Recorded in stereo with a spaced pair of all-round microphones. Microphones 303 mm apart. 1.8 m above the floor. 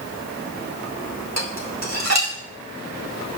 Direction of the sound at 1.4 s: 60° right (ahead or behind).